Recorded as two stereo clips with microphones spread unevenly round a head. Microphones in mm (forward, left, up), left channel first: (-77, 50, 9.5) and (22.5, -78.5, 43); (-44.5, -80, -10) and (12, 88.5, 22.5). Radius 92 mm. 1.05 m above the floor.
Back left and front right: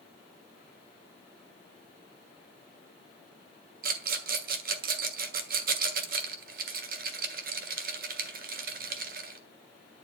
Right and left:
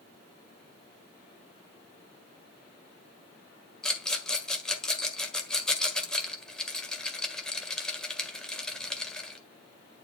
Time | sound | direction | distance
3.8 | a rattle | 20° right | 1.5 m